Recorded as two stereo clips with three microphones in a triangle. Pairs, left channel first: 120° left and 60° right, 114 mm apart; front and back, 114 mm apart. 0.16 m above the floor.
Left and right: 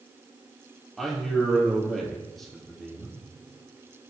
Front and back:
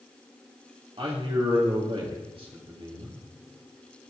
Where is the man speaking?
150° right, 3.5 m.